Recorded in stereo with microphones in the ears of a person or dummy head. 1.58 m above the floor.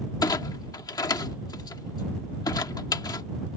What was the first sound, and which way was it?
A clunk, 25° left (ahead or behind).